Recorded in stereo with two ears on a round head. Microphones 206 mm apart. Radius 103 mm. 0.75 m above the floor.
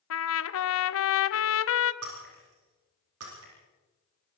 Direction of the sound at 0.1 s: 65° left (ahead or behind).